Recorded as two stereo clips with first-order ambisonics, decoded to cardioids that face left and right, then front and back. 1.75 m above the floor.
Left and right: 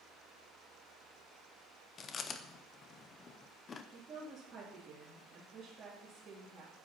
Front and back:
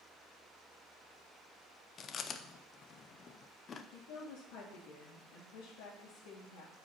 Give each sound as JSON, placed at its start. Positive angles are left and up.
{"t": 2.0, "sound": "chewing", "azimuth_deg": 40, "distance_m": 0.6}
{"t": 3.9, "sound": "a woman speaking", "azimuth_deg": -25, "distance_m": 2.5}